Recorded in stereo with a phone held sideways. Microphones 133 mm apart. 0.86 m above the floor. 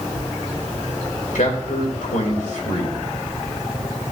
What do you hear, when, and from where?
1.4 s a man speaking: 75° left (ahead or behind), 2.5 m